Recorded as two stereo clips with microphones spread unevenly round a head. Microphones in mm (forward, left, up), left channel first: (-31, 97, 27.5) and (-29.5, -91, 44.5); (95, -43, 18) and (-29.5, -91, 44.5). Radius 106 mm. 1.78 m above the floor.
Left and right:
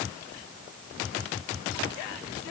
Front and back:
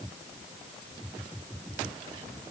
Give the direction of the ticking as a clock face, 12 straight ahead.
No ticking in this recording.